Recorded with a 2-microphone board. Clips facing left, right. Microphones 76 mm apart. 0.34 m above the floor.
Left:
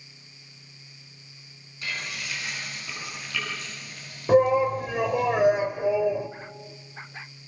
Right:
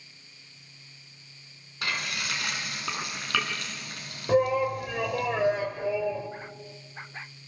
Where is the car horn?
I don't hear a car horn.